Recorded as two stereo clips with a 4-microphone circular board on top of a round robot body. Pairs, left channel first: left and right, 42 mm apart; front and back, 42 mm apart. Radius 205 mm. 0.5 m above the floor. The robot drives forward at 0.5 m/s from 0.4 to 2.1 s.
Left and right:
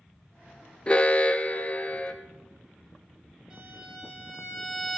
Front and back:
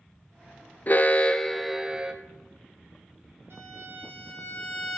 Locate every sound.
0.9 s an alarm: 30° left, 0.8 m; by 2.1 s 130° left, 0.7 m
3.5 s a violin: 150° right, 3 m